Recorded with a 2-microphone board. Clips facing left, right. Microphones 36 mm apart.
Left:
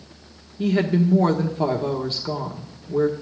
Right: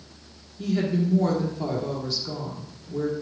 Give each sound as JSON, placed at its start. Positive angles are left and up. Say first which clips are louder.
{"t": 0.6, "sound": "a woman speaking", "louder": "left 5 dB", "side_deg": 40, "distance_m": 1.3}